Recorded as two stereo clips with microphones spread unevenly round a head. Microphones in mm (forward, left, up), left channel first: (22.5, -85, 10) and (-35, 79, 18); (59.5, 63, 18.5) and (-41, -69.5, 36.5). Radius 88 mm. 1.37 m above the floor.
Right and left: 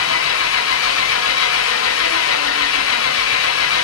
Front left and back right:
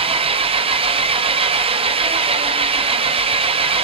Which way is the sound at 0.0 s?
70° right.